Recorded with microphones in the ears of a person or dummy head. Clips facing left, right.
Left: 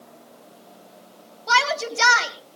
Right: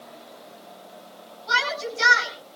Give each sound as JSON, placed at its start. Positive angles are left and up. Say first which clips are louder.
{"t": 1.5, "sound": "a shout", "louder": "left 5 dB", "side_deg": 70, "distance_m": 3.5}